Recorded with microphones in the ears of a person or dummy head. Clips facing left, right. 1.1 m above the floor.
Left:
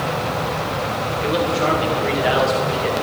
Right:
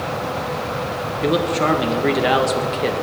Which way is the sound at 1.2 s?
60° right (ahead or behind).